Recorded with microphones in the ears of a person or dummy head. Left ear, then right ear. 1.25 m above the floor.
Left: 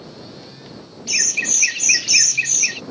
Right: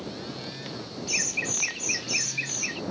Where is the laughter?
35° left (ahead or behind); by 2.8 s 30° left (ahead or behind).